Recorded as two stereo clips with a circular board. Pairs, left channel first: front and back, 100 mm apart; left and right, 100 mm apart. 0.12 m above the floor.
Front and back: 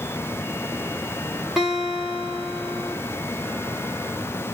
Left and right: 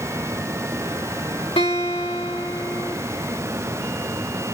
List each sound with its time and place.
1.6 s a guitar: 95° left, 5 m